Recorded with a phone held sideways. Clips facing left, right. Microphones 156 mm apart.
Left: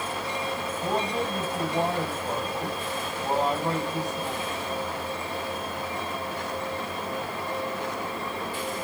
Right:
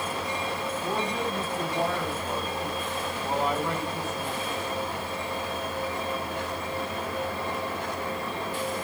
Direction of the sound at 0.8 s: 35° left (ahead or behind).